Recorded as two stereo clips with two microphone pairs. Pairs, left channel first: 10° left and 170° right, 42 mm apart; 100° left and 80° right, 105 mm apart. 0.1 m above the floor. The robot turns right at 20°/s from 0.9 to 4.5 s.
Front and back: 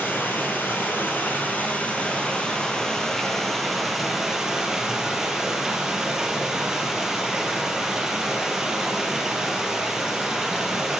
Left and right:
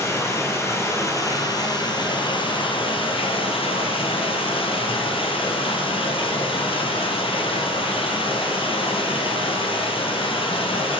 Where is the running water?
45° left, 1.4 m; by 11.0 s 115° left, 1.4 m.